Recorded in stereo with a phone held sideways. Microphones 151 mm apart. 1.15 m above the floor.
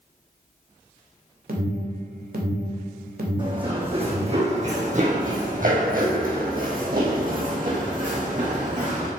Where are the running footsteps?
30° right (ahead or behind), 3.5 m; by 9.1 s 50° right (ahead or behind), 4.5 m.